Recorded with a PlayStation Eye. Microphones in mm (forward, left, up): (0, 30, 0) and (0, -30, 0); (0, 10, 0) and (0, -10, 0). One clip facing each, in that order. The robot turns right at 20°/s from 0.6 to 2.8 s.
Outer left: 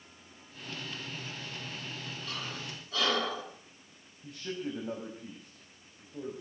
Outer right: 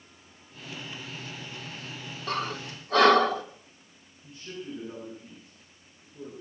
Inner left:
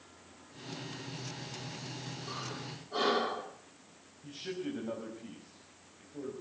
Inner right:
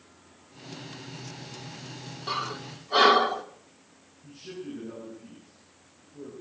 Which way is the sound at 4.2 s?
80° left.